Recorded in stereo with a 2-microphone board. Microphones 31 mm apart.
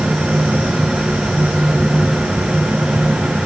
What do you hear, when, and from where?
Only background noise.